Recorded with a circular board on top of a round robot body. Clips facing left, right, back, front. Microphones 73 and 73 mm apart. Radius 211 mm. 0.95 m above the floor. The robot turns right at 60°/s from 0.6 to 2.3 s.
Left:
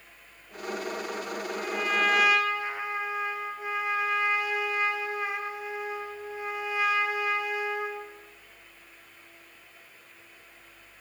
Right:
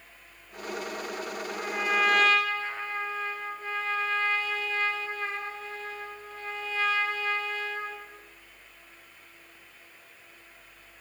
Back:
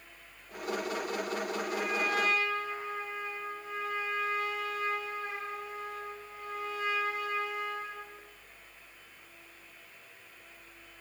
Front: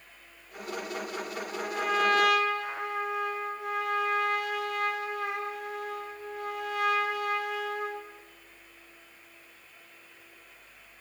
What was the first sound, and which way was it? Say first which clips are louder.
A trumpet: right 1 dB, front 3 dB; 40° right.